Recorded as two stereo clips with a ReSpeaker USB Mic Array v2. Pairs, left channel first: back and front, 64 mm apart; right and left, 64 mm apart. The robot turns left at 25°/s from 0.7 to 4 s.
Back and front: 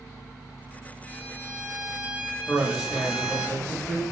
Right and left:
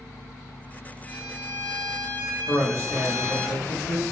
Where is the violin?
25° right, 0.7 m; by 3.5 s 85° right, 0.7 m.